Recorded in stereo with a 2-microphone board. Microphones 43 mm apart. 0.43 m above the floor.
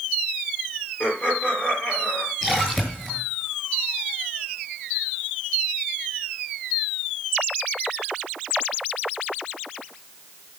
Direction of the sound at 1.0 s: 35° left (ahead or behind).